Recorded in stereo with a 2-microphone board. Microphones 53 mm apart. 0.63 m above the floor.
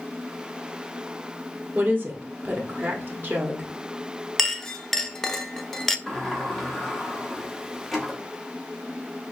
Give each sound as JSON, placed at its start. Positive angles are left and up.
{"t": 1.8, "sound": "a woman speaking", "side_deg": -40, "distance_m": 1.2}
{"t": 4.4, "sound": "a clink", "side_deg": 5, "distance_m": 0.5}
{"t": 6.1, "sound": "a sliding door", "side_deg": 0, "distance_m": 1.2}